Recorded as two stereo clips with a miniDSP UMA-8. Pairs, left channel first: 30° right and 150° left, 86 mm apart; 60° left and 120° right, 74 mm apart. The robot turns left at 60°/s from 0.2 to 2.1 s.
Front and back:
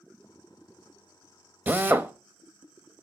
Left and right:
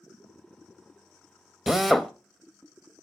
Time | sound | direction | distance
1.7 | a drill | 165° left | 0.6 m